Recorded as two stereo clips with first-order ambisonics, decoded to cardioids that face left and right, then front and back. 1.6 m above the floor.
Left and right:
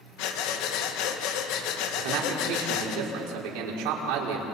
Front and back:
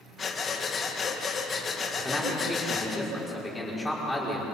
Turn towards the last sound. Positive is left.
turn(degrees=-90)